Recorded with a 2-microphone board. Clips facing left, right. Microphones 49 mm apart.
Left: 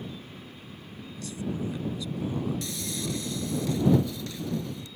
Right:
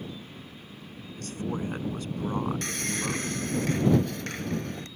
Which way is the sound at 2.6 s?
60° right (ahead or behind).